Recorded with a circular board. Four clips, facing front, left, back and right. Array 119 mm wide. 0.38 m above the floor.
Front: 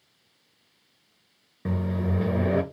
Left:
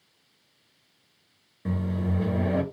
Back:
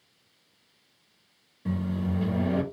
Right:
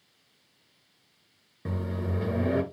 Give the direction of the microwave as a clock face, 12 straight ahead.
12 o'clock.